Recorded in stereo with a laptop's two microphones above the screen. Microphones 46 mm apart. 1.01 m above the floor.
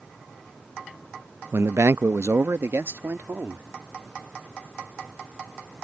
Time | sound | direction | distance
1.5 | a man speaking | 60° right (ahead or behind) | ?